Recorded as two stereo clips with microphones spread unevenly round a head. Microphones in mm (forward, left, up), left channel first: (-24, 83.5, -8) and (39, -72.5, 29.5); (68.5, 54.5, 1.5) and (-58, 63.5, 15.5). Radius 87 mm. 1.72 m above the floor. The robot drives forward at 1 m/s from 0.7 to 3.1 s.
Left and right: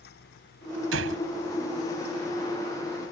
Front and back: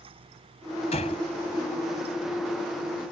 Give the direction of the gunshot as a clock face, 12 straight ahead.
2 o'clock.